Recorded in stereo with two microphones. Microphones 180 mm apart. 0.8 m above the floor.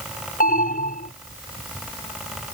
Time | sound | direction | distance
0.4 | an alarm | 55° left (ahead or behind) | ?